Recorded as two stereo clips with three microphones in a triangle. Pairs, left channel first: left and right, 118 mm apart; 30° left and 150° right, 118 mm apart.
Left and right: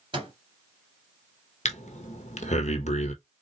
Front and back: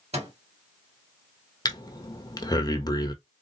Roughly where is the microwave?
Behind right.